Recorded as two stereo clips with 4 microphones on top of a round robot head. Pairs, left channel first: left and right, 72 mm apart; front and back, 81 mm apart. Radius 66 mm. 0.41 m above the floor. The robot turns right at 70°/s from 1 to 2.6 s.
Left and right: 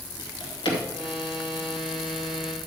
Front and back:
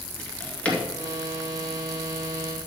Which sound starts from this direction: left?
A drawer, at 0.2 s.